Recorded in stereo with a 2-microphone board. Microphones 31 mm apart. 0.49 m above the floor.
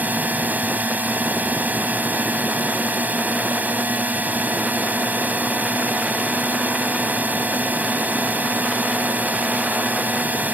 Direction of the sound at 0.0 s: 60° right (ahead or behind).